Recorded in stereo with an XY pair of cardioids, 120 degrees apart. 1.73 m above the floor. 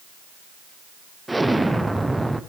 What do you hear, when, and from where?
1.3 s an explosion: 10° right, 0.9 m